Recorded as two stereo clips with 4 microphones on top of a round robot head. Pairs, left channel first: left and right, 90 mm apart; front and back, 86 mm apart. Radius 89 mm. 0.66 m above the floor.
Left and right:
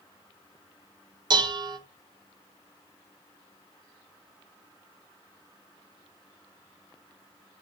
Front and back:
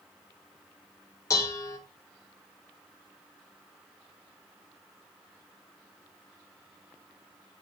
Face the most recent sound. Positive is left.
turn(degrees=-55)